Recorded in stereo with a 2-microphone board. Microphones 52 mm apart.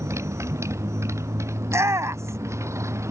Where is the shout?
65° right (ahead or behind).